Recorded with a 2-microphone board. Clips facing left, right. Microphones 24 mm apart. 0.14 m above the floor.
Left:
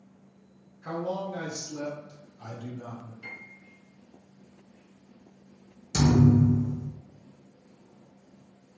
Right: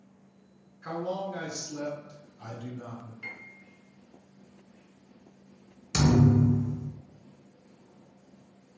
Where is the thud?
35° right (ahead or behind), 0.7 m.